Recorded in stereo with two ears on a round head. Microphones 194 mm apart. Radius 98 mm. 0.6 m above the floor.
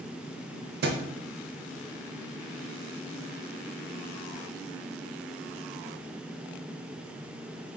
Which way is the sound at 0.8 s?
45° right (ahead or behind).